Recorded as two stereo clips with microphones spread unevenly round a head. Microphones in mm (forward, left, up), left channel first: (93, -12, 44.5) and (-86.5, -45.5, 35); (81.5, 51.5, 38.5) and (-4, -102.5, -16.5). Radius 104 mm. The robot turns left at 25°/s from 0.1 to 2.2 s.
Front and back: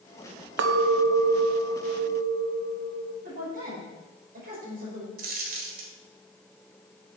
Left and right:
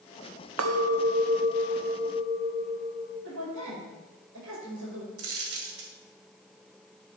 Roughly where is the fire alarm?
I don't hear a fire alarm.